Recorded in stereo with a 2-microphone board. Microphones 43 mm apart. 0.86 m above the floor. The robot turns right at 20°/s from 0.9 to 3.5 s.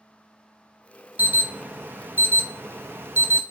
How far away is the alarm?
About 0.5 m.